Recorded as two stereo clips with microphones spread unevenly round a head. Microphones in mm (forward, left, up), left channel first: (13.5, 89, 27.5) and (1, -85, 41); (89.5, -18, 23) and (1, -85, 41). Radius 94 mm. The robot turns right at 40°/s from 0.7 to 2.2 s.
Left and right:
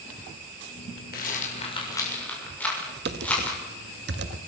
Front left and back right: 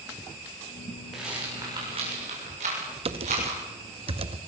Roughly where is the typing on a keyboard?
Behind right.